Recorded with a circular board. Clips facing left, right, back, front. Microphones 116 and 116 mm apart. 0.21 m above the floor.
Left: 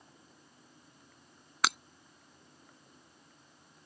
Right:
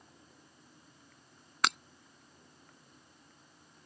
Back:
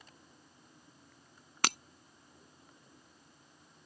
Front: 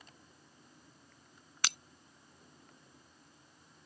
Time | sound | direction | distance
1.6 | breaking glass | 175° left | ?